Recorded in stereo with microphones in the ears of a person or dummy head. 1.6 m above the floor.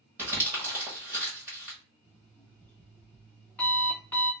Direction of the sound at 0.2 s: 10° right (ahead or behind).